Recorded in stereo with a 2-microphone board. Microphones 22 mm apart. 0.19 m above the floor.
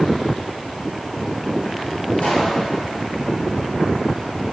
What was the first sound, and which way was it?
A pop, 70° left (ahead or behind).